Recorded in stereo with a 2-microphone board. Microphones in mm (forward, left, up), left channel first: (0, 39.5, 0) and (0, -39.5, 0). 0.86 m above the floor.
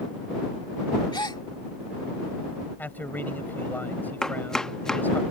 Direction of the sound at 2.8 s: 20° left (ahead or behind).